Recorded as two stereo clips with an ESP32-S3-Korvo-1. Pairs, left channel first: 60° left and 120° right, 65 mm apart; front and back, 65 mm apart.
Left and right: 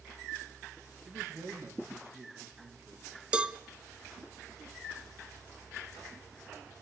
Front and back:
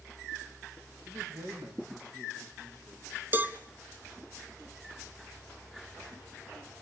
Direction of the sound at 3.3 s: Straight behind.